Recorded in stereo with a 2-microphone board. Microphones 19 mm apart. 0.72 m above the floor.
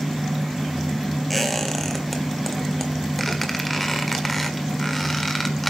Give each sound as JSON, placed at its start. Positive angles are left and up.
{"t": 1.3, "sound": "a squeak", "side_deg": 5, "distance_m": 1.6}